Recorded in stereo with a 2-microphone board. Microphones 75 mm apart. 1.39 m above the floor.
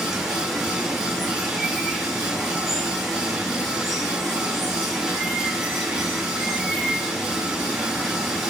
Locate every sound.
0.0 s running water: 5° right (ahead or behind), 2.5 m